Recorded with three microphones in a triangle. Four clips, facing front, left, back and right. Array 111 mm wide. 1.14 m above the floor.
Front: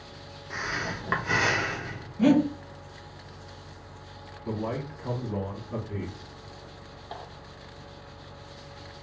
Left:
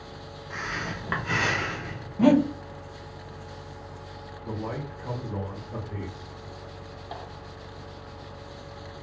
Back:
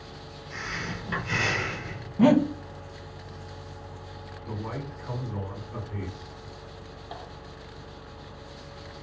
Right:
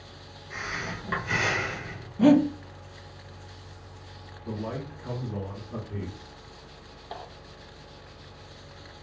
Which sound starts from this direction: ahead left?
Breathing, at 0.5 s.